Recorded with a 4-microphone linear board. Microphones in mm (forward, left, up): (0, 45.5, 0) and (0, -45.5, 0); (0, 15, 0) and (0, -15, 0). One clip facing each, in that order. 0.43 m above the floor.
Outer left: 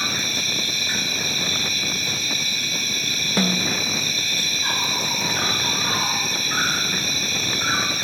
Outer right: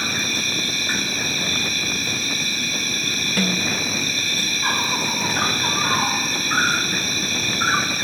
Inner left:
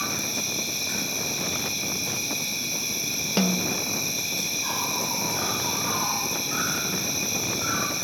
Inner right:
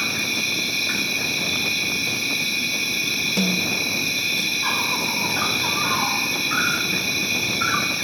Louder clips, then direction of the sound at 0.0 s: Outer right 2 dB, inner right 6 dB; 40° right (ahead or behind).